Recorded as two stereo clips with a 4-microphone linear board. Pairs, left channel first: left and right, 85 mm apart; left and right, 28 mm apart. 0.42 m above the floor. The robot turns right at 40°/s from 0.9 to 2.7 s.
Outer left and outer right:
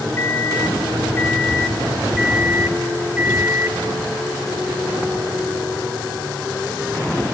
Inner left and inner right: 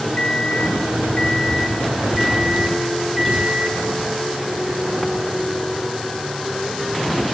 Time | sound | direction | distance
0.2 | a microwave | 135° left | 1.1 m